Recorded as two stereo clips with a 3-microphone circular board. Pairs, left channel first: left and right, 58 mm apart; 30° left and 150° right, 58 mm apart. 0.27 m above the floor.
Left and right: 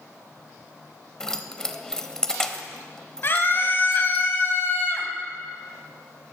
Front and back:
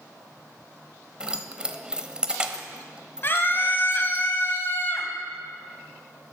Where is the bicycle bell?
I don't hear a bicycle bell.